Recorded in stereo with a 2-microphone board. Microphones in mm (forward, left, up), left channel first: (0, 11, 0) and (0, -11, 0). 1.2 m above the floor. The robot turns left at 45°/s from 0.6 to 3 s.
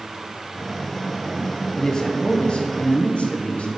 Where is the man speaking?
155° left, 0.7 m; by 3.7 s 100° left, 0.7 m.